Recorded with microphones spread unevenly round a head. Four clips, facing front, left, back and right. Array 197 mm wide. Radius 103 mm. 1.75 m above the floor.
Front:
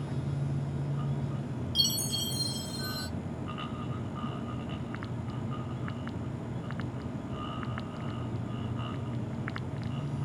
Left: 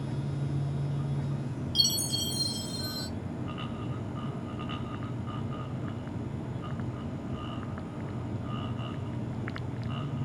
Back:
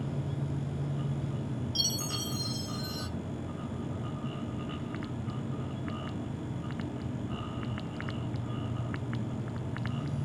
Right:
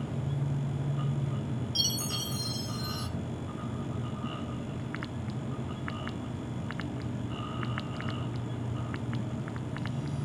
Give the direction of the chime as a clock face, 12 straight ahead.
12 o'clock.